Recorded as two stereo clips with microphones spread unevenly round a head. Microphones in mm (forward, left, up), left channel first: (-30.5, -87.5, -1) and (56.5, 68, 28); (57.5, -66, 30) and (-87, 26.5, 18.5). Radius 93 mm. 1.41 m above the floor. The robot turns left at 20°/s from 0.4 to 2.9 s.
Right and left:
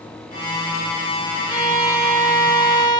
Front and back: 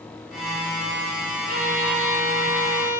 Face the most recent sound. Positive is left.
turn(degrees=135)